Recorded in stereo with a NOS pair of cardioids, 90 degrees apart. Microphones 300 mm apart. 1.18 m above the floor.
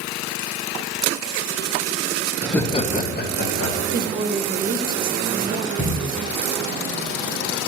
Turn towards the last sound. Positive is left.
turn(degrees=15)